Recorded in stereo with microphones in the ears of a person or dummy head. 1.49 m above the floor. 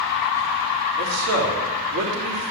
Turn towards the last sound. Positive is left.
turn(degrees=-85)